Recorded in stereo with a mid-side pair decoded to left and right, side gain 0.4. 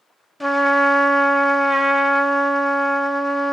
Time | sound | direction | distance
0.4 | a trumpet | 5° left | 0.8 m